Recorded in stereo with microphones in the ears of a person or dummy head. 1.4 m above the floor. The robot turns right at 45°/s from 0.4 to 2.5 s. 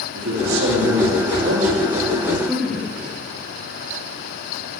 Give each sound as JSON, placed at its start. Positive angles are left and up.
{"t": 0.1, "sound": "a man speaking", "azimuth_deg": -105, "distance_m": 3.5}